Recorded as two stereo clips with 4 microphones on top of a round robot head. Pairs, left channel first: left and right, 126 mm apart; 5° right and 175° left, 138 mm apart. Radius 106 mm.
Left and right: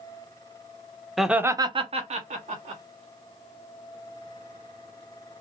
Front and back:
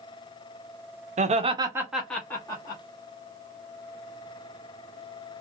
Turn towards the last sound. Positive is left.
turn(degrees=-65)